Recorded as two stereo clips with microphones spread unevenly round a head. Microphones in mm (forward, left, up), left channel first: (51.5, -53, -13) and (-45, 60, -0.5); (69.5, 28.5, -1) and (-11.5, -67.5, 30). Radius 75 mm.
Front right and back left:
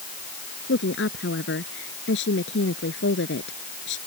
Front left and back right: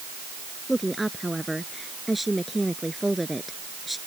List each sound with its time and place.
0.7 s a woman speaking: 40° right